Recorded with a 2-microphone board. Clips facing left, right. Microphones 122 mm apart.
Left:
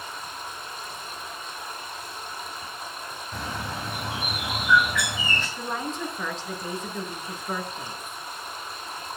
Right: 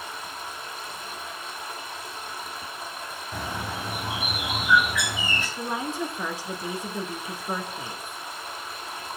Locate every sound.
0.0 s running water: 5° right (ahead or behind), 2.5 m
3.3 s a bird: 5° right (ahead or behind), 3 m
5.6 s a woman speaking: 10° right (ahead or behind), 1.1 m